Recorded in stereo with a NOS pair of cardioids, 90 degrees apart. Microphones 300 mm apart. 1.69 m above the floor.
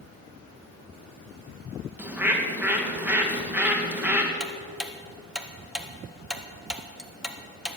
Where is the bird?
5° right, 2.5 m.